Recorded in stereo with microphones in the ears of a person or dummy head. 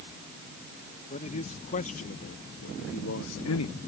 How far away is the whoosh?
I don't hear a whoosh.